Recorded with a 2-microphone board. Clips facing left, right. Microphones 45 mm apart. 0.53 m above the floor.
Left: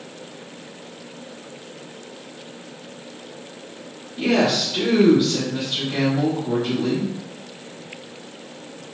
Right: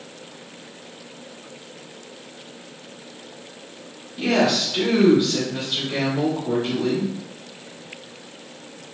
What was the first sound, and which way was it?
A woman speaking, 5° left (ahead or behind).